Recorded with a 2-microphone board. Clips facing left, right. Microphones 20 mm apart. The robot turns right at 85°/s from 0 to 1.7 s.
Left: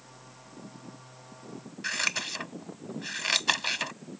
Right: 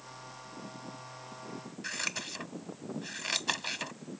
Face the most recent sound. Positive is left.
turn(degrees=25)  # may be behind; listen again after turning